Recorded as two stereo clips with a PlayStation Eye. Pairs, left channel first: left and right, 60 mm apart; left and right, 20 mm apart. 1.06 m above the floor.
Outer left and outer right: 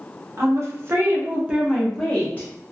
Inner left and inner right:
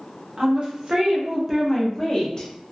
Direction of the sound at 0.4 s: 50° right (ahead or behind).